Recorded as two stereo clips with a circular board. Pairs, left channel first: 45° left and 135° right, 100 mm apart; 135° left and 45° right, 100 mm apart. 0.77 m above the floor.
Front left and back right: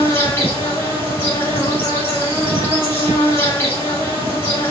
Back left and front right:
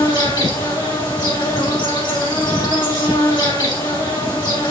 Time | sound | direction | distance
0.0 | an insect | 105° left | 2 m